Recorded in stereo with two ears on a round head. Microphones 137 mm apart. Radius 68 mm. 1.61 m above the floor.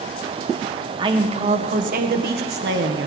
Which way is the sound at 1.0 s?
30° right (ahead or behind).